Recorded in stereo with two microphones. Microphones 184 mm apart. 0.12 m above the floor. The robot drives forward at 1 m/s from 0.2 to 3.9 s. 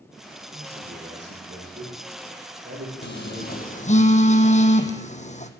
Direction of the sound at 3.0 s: 75° left (ahead or behind).